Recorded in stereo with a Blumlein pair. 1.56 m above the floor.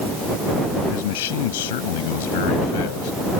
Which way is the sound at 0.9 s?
55° left.